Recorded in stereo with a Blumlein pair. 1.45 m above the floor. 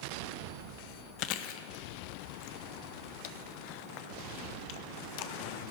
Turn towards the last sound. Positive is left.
turn(degrees=45)